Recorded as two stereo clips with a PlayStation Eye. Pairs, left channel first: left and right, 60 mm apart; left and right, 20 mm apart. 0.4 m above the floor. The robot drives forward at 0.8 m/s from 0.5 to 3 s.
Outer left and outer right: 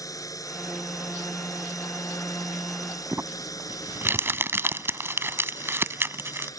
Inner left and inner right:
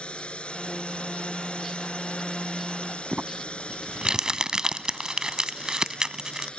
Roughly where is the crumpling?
Right.